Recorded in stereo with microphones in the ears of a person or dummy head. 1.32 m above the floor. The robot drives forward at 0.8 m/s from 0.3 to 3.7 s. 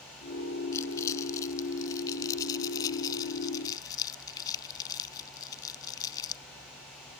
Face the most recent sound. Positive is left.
turn(degrees=20)  # may be behind; listen again after turning